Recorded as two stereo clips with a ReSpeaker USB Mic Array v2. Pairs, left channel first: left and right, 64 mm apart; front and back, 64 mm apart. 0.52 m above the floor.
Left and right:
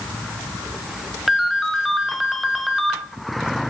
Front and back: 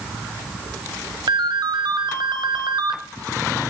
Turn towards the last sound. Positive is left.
turn(degrees=180)